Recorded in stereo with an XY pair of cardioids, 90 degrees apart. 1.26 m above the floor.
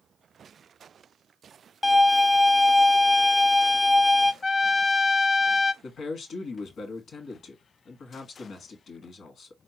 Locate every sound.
1.8 s a violin: 25° left, 0.6 m
4.4 s a trumpet: 50° left, 0.7 m
5.8 s a man speaking: 65° left, 1.7 m